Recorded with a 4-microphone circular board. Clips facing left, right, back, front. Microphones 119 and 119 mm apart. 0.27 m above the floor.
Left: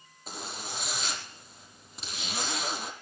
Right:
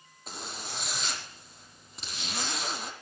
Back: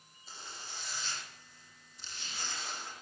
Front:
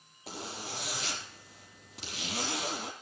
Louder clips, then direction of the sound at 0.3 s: Left 1 dB, front 9 dB; straight ahead.